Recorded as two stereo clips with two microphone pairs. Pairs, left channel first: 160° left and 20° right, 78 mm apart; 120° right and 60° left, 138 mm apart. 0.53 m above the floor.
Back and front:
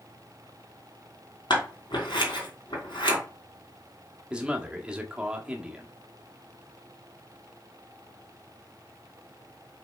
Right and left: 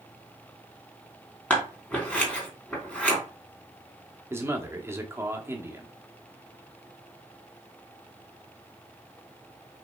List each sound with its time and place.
1.5 s scissors: 160° left, 3 m
4.3 s a man speaking: 35° left, 1.2 m